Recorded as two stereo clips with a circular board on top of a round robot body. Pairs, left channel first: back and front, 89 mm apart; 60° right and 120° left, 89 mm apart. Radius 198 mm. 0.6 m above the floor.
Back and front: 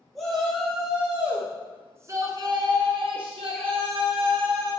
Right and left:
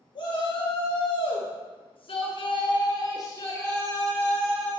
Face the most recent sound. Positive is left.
turn(degrees=25)